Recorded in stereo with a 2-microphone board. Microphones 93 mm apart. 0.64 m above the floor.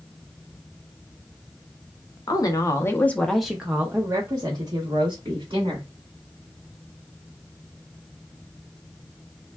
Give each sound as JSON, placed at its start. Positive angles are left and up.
{"t": 2.3, "sound": "a woman speaking", "side_deg": 45, "distance_m": 0.8}